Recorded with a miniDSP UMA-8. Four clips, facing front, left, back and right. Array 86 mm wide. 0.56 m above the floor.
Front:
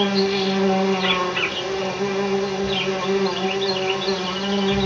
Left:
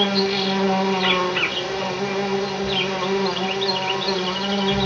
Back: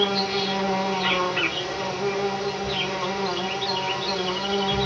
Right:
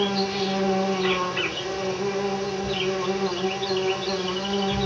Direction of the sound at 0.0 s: 70° left.